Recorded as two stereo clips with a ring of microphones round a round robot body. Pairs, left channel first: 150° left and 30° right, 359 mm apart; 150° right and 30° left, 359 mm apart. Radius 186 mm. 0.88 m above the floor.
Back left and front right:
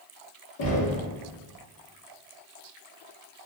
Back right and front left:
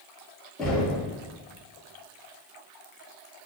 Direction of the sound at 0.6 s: 120° left.